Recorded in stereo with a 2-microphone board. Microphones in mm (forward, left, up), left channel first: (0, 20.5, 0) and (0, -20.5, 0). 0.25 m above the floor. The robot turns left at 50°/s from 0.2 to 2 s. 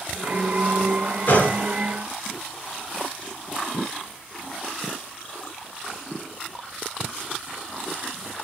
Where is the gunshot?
55° left (ahead or behind), 4 m; by 1.6 s 40° left (ahead or behind), 4 m.